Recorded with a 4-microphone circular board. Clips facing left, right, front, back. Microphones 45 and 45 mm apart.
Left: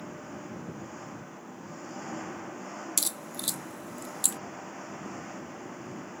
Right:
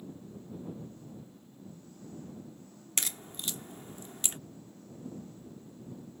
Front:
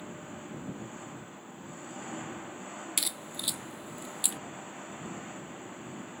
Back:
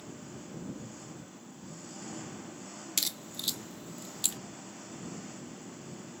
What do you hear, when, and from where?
0.0 s an engine running: 65° left
3.0 s a crack: 70° right